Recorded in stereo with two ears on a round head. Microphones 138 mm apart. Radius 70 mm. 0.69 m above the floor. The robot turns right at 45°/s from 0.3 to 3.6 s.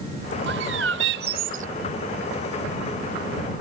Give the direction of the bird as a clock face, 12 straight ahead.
3 o'clock.